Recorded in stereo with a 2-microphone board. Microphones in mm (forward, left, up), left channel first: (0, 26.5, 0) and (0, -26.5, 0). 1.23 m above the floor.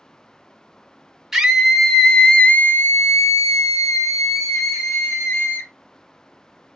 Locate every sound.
1.3 s a scream: 5° right (ahead or behind), 1.2 m; by 5.7 s 55° left (ahead or behind), 1.8 m